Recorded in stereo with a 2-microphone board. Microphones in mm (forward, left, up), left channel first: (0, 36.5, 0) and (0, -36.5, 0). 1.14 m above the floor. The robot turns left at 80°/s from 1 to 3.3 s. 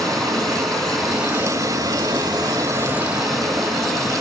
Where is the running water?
5° left, 3.5 m; by 4.2 s straight behind, 3.5 m.